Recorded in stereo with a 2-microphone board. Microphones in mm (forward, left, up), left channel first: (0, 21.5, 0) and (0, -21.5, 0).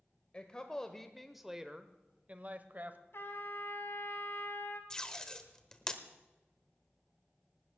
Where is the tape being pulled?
15° left (ahead or behind), 1.2 m.